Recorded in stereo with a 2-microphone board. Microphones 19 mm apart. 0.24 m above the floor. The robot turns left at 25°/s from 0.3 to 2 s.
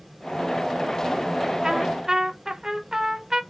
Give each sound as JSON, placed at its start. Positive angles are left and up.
{"t": 1.6, "sound": "a trumpet", "side_deg": -30, "distance_m": 0.7}